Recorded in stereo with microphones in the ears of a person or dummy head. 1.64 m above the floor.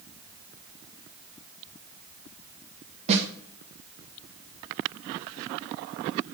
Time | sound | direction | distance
3.1 | a snare drum | 35° right (ahead or behind) | 1.9 m